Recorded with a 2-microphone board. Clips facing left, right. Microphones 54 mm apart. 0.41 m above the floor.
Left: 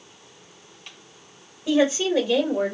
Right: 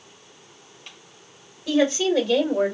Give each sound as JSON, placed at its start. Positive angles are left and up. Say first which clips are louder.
{"t": 1.7, "sound": "a woman speaking", "louder": "even", "side_deg": 20, "distance_m": 1.8}